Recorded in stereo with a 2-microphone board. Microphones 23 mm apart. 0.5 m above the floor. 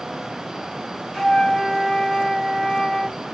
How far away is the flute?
About 0.9 m.